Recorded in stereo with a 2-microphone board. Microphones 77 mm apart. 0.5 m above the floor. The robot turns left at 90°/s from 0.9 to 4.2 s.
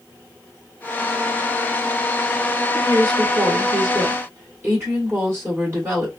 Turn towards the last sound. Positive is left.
turn(degrees=-145)